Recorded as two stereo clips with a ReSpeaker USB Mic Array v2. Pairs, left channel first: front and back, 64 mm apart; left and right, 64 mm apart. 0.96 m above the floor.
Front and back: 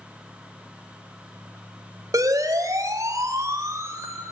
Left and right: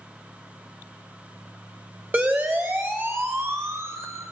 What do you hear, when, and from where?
2.1 s a siren: 150° right, 5.5 m; by 4.2 s 135° right, 5 m